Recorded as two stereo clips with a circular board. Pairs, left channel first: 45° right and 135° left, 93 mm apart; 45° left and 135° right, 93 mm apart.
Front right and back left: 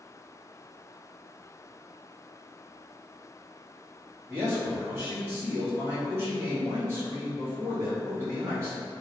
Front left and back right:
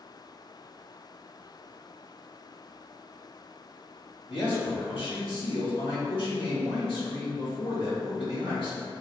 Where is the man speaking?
75° left, 1.5 m.